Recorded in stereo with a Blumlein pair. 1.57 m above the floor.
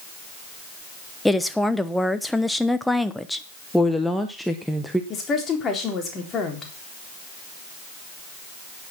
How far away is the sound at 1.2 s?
About 1.0 m.